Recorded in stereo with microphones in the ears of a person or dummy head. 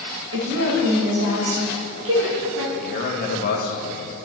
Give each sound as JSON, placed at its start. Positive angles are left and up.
{"t": 0.3, "sound": "a woman speaking", "side_deg": -70, "distance_m": 1.8}
{"t": 2.7, "sound": "a man speaking", "side_deg": 50, "distance_m": 1.2}